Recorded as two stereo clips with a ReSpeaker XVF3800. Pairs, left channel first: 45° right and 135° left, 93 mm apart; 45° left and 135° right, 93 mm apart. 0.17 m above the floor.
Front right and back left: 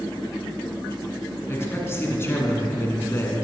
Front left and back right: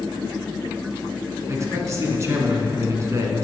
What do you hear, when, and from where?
1.5 s a man speaking: 95° right, 1.7 m